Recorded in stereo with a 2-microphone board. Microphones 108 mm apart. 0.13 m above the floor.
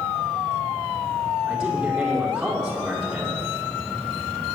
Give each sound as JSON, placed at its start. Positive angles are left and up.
{"t": 1.5, "sound": "a man speaking", "side_deg": -5, "distance_m": 4.5}